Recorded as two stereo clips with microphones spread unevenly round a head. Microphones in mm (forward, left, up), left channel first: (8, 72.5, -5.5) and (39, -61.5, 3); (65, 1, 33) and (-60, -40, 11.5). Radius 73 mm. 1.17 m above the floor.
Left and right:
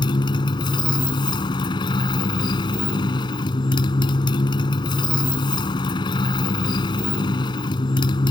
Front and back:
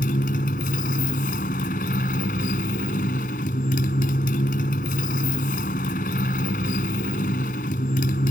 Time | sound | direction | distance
0.0 | a motorcycle | 45° left | ?